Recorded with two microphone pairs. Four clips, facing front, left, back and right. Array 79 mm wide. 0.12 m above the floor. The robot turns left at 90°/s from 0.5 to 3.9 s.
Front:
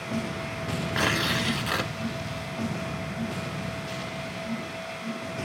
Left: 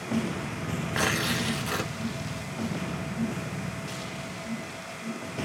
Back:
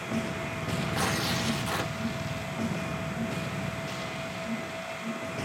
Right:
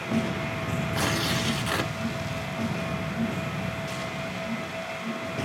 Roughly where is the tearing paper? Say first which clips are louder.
Left 1 dB, front 5 dB; ahead left.